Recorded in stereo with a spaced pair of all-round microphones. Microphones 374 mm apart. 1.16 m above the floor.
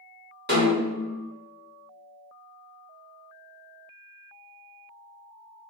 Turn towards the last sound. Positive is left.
turn(degrees=-25)  # may be behind; listen again after turning